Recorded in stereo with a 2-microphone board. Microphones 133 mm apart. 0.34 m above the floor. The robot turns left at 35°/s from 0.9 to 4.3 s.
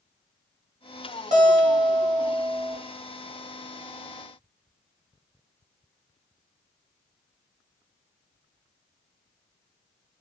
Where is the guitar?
100° right, 1.1 m; by 2.8 s 150° right, 1.1 m.